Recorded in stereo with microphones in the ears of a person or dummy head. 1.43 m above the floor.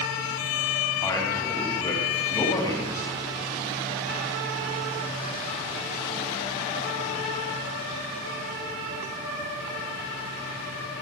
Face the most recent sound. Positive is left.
turn(degrees=20)  # may be behind; listen again after turning